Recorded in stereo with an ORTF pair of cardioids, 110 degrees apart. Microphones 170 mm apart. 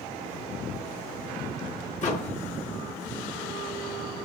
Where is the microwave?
45° left, 1.7 m.